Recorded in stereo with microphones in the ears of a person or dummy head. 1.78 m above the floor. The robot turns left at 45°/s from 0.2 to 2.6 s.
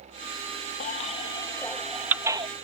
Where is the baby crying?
45° left (ahead or behind); by 2.5 s 20° right (ahead or behind).